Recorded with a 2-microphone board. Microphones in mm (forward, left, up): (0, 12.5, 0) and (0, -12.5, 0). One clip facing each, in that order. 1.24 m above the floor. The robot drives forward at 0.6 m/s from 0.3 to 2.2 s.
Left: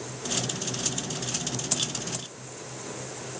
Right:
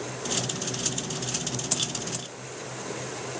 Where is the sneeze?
No sneeze in this recording.